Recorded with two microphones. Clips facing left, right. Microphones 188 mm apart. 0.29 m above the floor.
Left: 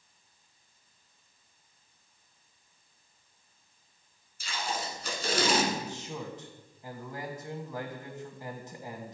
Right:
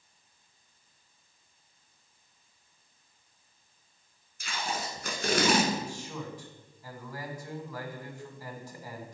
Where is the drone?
I don't hear a drone.